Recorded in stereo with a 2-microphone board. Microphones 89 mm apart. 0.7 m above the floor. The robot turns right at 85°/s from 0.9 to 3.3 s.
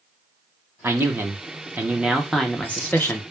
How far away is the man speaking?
About 0.6 m.